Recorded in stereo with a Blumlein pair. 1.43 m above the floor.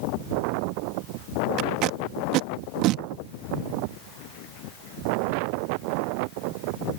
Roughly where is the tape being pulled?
Ahead right.